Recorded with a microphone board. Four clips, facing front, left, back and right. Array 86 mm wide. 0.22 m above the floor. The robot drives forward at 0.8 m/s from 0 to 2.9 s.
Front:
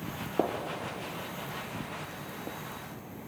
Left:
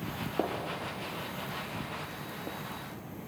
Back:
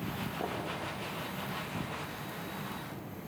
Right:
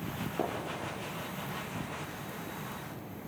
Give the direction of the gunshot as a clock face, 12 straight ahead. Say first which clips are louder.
Left 2 dB, front 9 dB; 11 o'clock.